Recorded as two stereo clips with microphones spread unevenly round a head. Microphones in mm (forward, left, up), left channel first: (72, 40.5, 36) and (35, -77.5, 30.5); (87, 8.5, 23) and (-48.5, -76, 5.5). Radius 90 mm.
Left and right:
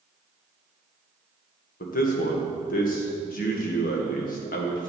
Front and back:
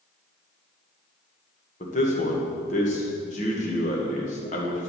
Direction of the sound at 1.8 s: 85° left.